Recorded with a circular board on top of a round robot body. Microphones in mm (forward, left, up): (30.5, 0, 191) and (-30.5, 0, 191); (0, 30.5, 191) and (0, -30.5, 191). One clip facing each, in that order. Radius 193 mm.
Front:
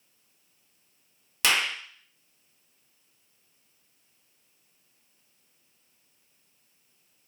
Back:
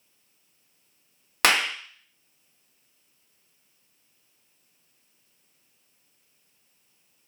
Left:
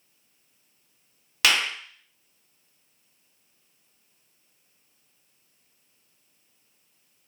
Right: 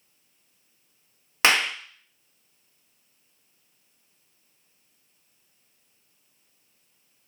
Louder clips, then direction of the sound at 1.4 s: Back 4 dB, right 2 dB; 150° right.